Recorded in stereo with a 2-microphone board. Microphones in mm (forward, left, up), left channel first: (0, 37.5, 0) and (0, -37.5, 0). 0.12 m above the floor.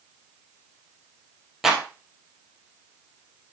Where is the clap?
5° right (ahead or behind), 3 m.